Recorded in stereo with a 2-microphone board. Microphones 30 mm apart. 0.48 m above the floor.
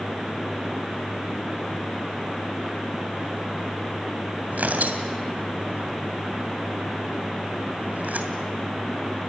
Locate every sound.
4.5 s tearing paper: 70° right (ahead or behind), 2.5 m